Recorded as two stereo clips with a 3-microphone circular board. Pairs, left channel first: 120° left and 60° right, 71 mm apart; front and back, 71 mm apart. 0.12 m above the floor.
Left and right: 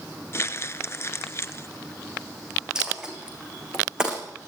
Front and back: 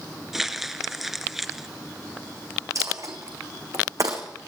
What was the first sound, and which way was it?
Crumpling, 95° left.